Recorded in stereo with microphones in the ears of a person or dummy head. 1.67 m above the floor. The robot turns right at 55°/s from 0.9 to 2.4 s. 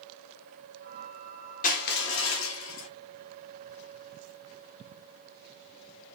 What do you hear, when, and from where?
1.6 s crushing: 40° left, 1.1 m; by 2.9 s 85° left, 1.1 m